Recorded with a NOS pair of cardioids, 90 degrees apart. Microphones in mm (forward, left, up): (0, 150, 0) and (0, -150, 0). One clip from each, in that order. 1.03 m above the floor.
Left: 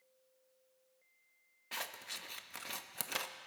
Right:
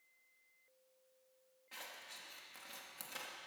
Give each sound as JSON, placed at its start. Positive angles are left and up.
{"t": 1.7, "sound": "scissors", "azimuth_deg": 60, "distance_m": 0.8}